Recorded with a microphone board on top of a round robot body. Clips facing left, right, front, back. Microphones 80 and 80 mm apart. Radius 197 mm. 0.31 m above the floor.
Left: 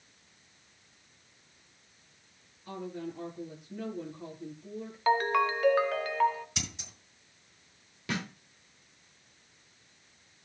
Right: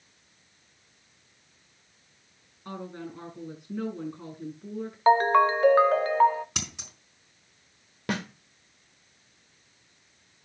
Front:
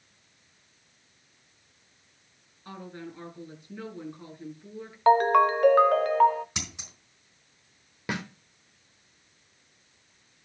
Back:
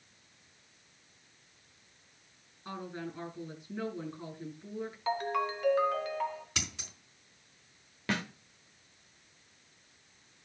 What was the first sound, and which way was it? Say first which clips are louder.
A woman speaking: even, back 1 dB; 100° right.